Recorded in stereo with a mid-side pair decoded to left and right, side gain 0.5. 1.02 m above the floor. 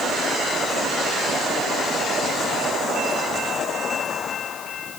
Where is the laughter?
I don't hear laughter.